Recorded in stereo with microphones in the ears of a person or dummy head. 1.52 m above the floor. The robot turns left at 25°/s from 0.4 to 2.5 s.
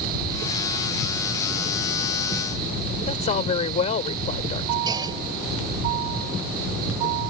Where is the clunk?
25° right (ahead or behind).